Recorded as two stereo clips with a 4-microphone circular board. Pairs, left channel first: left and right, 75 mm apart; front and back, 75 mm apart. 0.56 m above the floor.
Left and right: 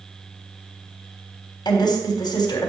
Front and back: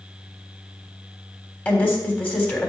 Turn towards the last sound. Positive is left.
turn(degrees=70)